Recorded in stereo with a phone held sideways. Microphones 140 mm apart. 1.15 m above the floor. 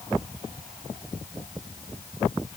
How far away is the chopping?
No chopping in this recording.